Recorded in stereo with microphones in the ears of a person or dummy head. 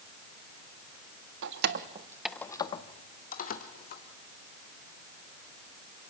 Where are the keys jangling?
65° right (ahead or behind), 1.3 m; by 4.0 s 50° left (ahead or behind), 3.5 m.